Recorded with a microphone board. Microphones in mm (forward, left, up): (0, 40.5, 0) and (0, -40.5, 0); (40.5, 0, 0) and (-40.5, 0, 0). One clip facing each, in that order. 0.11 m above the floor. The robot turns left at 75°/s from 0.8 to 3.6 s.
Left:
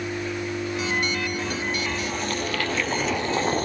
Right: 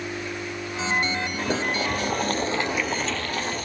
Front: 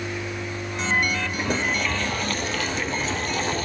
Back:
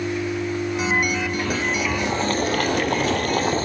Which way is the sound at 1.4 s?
65° right.